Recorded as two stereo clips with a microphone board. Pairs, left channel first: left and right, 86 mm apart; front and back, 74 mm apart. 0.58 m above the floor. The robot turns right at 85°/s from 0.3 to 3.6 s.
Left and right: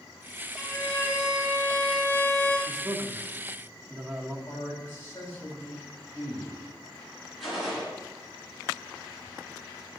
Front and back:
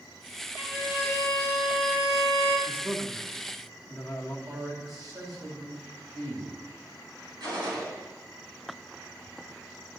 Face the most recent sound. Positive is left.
turn(degrees=-175)